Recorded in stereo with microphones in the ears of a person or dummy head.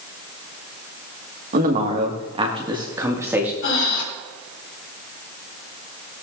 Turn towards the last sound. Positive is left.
turn(degrees=75)  # may be behind; listen again after turning